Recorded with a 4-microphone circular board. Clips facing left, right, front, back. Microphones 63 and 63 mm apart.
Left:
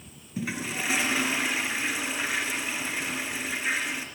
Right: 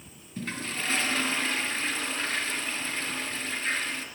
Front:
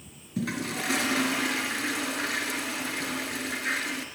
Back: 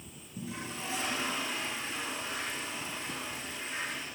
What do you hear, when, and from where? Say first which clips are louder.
0.4 s a toilet flushing: left 2 dB, front 9 dB; 10° left, 4 m